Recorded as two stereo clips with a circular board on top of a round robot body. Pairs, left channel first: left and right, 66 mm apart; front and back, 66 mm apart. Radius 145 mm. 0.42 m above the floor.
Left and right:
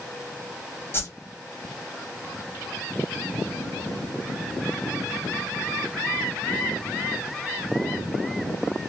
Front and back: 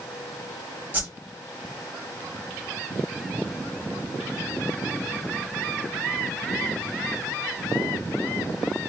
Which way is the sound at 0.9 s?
120° left.